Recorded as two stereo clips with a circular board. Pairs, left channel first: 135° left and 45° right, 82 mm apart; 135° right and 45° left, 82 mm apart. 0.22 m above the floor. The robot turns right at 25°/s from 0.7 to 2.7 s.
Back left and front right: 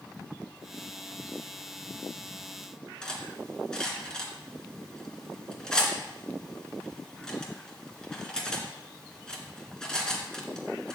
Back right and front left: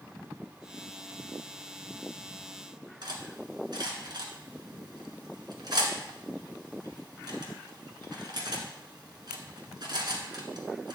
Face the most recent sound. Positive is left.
turn(degrees=55)